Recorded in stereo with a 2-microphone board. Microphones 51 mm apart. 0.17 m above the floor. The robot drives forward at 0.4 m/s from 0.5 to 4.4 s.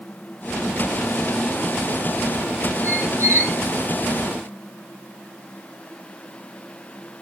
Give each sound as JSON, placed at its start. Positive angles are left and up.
{"t": 2.8, "sound": "a squeak", "side_deg": -75, "distance_m": 2.5}